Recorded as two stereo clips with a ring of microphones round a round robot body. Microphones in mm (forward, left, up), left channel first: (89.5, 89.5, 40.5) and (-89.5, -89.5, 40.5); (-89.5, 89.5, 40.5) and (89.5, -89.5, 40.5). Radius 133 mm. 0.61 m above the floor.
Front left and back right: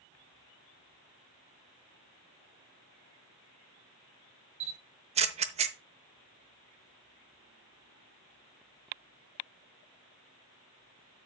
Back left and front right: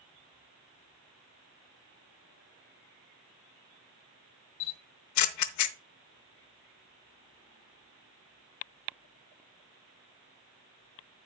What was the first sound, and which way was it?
A camera shutter, 160° left.